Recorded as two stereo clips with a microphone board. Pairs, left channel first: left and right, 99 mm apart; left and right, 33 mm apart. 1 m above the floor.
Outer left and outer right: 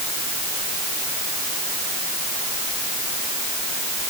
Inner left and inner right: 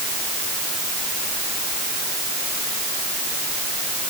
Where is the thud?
No thud in this recording.